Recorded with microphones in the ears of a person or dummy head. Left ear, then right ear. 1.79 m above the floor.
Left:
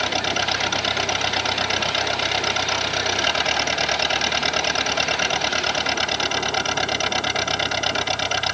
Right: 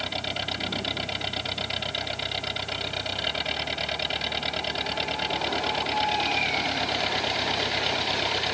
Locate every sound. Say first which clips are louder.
0.0 s an engine running: left 8 dB; 50° left (ahead or behind)